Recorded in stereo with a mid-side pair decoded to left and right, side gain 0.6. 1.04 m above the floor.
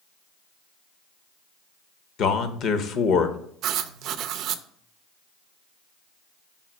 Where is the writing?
60° right, 0.6 m.